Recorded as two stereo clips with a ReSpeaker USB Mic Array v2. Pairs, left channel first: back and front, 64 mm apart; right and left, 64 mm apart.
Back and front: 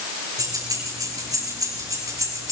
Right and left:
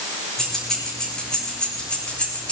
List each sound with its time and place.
0.4 s keys jangling: 5° right, 9 m; by 2.5 s 20° right, 9.5 m